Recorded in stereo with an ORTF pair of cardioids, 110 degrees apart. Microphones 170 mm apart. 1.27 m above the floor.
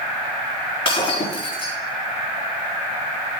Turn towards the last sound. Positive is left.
turn(degrees=35)